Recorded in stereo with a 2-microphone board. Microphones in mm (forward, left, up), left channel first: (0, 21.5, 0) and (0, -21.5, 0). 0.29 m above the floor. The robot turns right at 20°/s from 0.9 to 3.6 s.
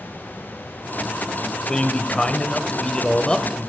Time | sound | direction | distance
1.7 | a man speaking | 25° left (ahead or behind) | 1.0 m